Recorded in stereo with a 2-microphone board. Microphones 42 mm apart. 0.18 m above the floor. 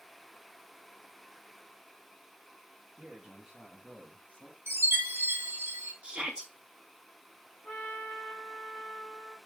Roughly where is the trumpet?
Left.